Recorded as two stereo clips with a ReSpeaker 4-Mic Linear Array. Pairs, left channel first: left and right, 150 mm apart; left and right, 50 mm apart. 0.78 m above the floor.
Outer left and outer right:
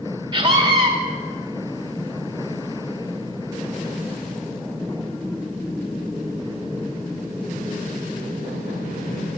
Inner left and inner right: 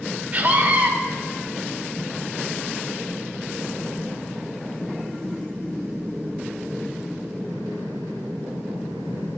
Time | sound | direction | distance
0.3 | a scream | 30° right (ahead or behind) | 1.8 m